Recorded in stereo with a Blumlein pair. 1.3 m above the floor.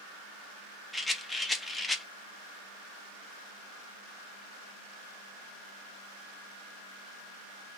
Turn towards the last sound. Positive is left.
turn(degrees=5)